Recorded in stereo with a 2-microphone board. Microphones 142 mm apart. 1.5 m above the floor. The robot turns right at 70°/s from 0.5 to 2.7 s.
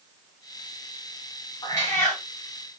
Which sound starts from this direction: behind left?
A cat meowing, at 1.6 s.